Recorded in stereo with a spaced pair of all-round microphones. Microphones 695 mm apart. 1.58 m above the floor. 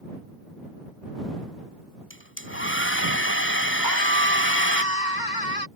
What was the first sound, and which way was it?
A hair dryer, 15° left (ahead or behind).